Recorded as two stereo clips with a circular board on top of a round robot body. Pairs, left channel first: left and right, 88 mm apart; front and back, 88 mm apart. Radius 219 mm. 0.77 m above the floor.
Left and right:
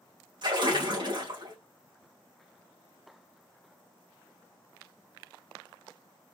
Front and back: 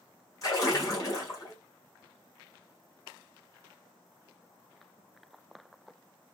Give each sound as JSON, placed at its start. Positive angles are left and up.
{"t": 0.4, "sound": "a splash", "azimuth_deg": -55, "distance_m": 2.5}